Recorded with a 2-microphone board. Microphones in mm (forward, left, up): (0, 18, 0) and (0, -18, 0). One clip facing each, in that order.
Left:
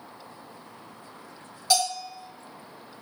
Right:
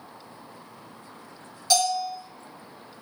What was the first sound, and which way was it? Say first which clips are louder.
A bell: right 2 dB; 10° left (ahead or behind).